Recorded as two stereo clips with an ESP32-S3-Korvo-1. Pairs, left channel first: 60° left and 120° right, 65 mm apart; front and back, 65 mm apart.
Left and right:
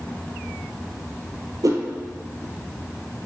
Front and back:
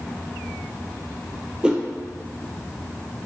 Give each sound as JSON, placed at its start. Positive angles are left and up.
{"t": 1.6, "sound": "a whoosh", "azimuth_deg": -105, "distance_m": 0.6}